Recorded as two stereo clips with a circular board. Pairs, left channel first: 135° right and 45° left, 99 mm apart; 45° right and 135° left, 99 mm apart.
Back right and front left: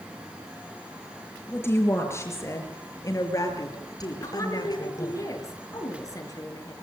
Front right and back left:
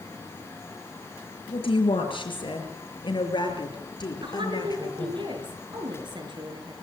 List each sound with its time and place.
1.5 s a woman speaking: 70° right, 5.5 m; by 5.2 s 90° right, 5.5 m
4.2 s a woman speaking: 170° left, 5 m